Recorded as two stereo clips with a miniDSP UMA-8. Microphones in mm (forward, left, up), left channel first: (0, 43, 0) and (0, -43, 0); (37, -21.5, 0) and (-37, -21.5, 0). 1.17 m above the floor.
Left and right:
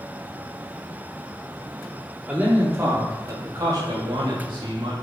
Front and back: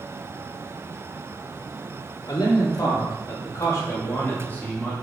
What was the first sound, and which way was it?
A man speaking, 25° right.